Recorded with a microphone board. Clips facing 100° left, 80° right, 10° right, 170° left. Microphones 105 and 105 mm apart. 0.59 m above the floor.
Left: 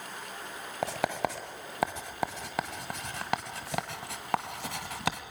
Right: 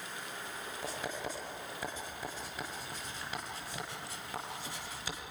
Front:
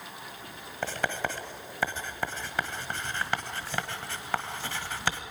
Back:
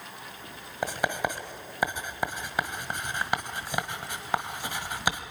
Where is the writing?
95° left, 1.5 m.